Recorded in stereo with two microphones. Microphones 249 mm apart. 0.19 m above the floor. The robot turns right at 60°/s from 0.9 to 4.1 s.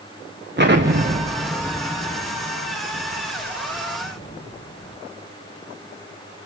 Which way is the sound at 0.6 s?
45° right (ahead or behind).